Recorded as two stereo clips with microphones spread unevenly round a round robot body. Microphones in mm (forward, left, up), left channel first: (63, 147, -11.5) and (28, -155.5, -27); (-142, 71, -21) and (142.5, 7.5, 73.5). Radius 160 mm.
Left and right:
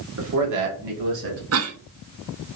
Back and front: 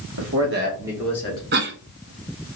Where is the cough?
75° right, 0.7 m.